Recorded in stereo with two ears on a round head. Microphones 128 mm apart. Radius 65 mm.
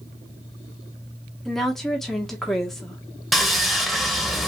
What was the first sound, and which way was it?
A woman speaking, centre (ahead or behind).